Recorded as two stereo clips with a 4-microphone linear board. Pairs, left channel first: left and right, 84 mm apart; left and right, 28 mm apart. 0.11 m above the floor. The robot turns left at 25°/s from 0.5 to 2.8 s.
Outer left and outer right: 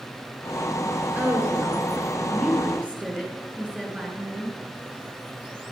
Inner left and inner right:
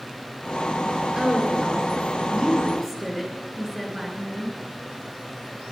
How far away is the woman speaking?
About 1.5 m.